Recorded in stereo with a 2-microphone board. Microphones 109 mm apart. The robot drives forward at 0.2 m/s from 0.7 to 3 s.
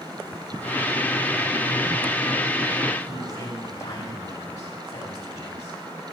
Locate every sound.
3.0 s a man speaking: 35° left (ahead or behind), 5.5 m